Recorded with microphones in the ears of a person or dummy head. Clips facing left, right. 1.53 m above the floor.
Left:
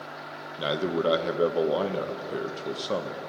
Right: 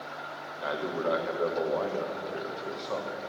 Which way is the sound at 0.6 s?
50° left (ahead or behind).